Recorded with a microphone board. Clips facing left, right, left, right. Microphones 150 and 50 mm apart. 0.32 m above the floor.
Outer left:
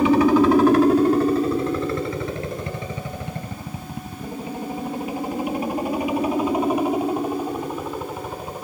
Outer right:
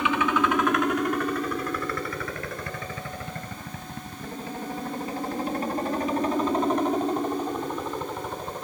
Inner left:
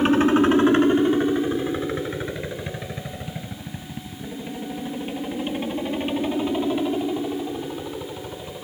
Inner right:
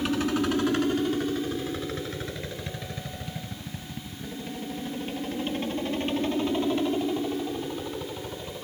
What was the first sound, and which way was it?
A helicopter, 35° left (ahead or behind).